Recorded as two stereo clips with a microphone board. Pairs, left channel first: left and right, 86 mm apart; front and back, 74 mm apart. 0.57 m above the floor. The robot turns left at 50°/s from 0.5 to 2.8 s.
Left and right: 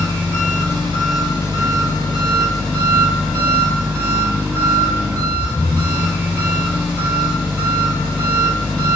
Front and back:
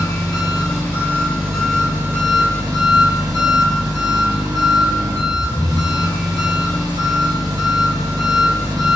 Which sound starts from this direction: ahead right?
An engine running, at 0.0 s.